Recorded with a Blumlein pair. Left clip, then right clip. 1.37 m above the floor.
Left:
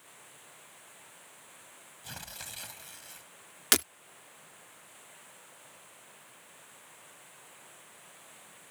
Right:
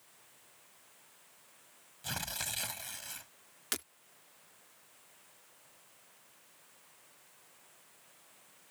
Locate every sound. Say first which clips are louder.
0.0 s running water: left 9 dB; 60° left
2.0 s tearing paper: right 6 dB; 15° right
3.7 s breaking glass: left 13 dB; 30° left